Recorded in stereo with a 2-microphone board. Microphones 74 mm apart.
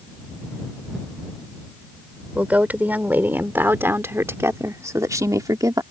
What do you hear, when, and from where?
2.4 s a woman speaking: 20° right (ahead or behind); by 5.8 s 60° right (ahead or behind)